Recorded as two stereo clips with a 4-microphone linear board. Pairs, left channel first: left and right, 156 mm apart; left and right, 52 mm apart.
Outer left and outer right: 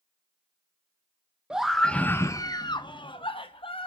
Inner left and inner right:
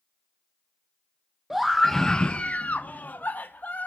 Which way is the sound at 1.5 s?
5° right (ahead or behind).